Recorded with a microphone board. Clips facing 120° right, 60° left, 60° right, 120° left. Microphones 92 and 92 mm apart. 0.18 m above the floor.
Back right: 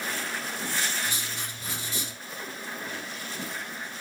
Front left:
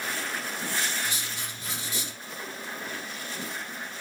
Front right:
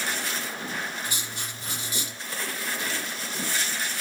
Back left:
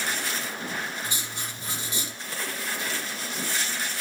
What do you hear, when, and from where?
1.0 s writing: 175° right, 6.5 m